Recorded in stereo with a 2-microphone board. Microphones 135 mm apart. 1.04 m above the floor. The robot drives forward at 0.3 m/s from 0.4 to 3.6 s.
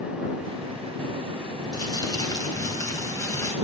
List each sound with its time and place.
1.7 s crumpling: 30° left (ahead or behind), 2.5 m; by 3.5 s 25° left (ahead or behind), 3 m